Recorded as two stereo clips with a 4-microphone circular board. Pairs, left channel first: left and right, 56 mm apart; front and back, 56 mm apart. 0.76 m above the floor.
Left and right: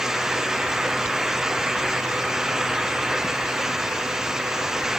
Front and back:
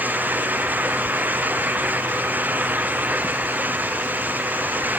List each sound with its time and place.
Only background noise.